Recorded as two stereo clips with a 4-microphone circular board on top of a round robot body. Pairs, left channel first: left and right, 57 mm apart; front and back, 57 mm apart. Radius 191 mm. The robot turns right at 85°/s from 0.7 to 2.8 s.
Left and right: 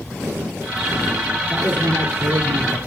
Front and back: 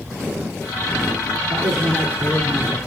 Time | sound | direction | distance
1.5 | a man speaking | 170° right | 2.5 m